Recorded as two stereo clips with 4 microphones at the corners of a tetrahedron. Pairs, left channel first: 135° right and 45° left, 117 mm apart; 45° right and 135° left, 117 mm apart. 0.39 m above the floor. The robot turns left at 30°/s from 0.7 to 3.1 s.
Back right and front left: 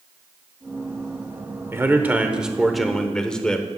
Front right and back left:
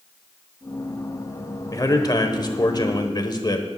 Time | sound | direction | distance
1.7 | a man speaking | 15° right | 1.0 m